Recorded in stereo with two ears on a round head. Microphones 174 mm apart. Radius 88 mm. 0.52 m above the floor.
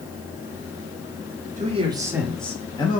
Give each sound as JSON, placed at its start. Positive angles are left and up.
{"t": 1.6, "sound": "a man speaking", "side_deg": -40, "distance_m": 0.9}